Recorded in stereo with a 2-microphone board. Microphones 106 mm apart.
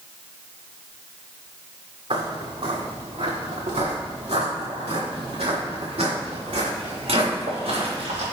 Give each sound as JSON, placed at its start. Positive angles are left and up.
{"t": 2.1, "sound": "footsteps", "side_deg": -65, "distance_m": 2.0}